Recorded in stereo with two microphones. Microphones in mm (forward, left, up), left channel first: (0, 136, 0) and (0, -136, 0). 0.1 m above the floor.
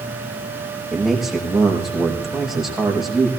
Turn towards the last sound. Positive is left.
turn(degrees=0)  # may be behind; listen again after turning